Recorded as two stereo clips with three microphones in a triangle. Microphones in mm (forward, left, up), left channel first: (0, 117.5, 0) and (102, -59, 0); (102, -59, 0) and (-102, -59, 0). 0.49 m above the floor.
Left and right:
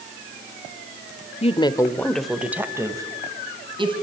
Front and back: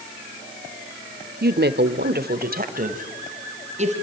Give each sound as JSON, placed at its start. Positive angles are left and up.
{"t": 1.4, "sound": "a woman speaking", "azimuth_deg": 165, "distance_m": 1.3}